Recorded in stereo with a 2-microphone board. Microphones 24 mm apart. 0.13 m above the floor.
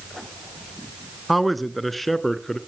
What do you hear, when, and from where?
1.3 s a man speaking: centre (ahead or behind), 1.1 m; by 2.6 s 10° left (ahead or behind), 1.5 m